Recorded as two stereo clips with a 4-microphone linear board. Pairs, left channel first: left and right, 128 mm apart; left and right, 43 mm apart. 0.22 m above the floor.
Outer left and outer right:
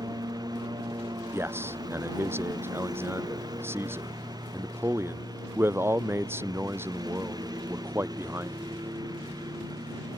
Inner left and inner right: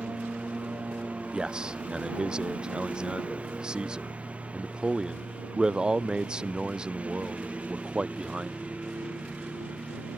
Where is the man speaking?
15° right (ahead or behind).